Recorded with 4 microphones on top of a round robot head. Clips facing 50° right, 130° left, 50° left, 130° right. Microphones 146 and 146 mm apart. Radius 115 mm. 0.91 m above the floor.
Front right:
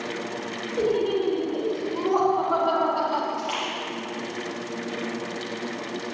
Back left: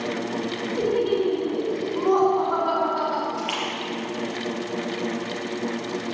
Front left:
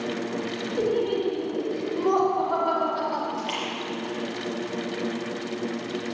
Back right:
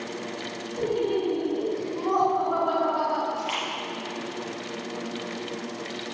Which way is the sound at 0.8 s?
50° left.